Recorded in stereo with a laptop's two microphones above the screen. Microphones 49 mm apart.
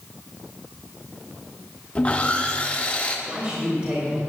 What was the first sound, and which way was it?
Sawing, 25° left (ahead or behind).